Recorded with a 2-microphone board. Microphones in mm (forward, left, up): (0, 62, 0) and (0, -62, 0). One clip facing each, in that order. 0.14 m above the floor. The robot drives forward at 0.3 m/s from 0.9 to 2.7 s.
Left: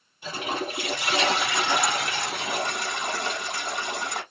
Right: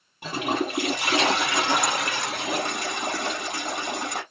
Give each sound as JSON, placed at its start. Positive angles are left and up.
{"t": 0.2, "sound": "a toilet flushing", "side_deg": -65, "distance_m": 3.5}